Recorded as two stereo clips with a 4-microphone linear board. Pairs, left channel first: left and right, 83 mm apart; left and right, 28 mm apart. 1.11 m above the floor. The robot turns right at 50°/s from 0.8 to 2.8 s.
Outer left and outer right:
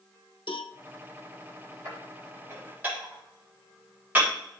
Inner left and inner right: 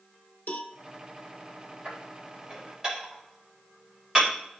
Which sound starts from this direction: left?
A cowbell, at 0.5 s.